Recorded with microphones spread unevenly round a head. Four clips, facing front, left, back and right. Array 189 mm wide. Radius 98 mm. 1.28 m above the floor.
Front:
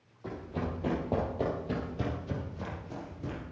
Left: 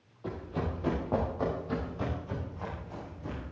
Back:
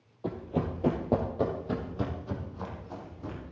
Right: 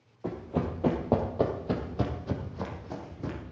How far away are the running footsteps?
About 2.5 m.